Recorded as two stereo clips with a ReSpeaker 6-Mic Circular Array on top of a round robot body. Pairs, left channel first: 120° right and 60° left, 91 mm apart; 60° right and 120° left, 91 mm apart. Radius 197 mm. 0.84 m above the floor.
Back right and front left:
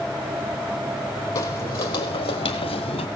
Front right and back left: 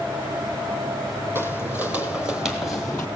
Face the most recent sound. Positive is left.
turn(degrees=-135)